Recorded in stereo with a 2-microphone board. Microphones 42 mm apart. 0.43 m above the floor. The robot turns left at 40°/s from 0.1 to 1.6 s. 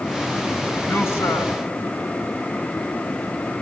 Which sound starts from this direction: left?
A man speaking, at 0.8 s.